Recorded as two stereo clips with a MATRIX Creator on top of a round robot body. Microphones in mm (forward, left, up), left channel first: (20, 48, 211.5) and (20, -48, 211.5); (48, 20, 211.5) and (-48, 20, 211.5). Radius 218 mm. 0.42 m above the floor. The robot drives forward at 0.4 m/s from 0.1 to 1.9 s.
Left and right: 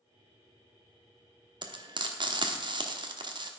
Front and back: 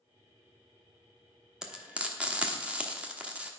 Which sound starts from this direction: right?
Frying, at 1.6 s.